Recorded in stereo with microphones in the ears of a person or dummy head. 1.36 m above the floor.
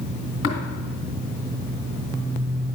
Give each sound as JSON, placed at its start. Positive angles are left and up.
{"t": 0.4, "sound": "tapping", "side_deg": 65, "distance_m": 2.5}